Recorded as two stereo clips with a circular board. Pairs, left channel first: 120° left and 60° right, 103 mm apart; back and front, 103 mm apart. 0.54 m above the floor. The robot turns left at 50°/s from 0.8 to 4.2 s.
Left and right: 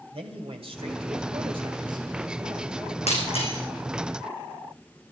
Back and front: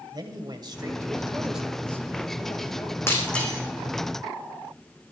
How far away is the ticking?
No ticking in this recording.